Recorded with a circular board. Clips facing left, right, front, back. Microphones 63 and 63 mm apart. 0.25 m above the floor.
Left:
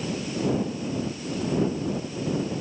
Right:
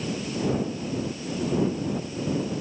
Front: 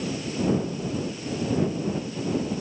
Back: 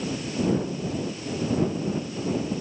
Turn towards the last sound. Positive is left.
No sound to turn to.